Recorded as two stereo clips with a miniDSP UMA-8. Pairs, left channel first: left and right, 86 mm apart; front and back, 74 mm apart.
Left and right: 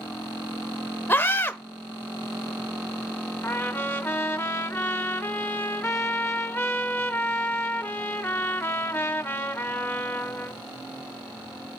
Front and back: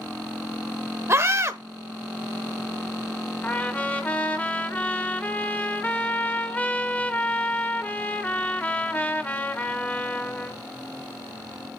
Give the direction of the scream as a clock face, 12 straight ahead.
7 o'clock.